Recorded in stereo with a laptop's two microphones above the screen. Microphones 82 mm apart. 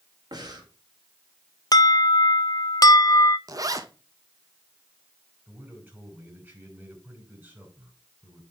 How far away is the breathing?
About 1.7 m.